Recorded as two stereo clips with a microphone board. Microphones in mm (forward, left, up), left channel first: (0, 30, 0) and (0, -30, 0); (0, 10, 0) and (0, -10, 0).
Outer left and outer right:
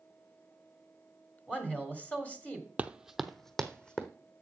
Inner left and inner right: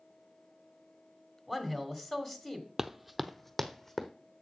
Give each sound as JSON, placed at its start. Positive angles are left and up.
{"t": 1.5, "sound": "a man speaking", "side_deg": 20, "distance_m": 1.7}
{"t": 2.8, "sound": "running footsteps", "side_deg": -25, "distance_m": 0.6}